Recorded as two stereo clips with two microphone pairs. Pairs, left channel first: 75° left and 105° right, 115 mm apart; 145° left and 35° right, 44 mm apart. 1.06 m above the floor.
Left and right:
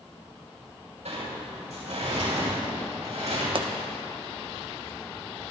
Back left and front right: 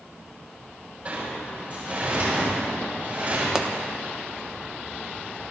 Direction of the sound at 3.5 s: 105° right.